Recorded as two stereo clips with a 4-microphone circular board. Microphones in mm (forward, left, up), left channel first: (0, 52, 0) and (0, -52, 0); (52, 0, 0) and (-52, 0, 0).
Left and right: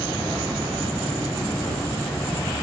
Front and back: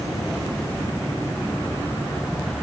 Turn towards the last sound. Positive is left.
No sound to turn to.